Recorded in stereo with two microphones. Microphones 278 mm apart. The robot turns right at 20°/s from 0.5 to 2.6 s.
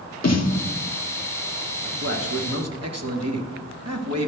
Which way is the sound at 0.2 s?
60° left (ahead or behind).